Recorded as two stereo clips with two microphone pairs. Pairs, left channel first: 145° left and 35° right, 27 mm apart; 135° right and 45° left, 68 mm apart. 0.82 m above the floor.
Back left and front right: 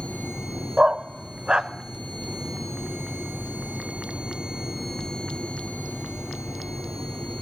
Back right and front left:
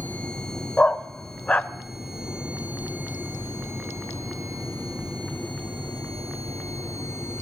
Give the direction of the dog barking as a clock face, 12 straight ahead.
3 o'clock.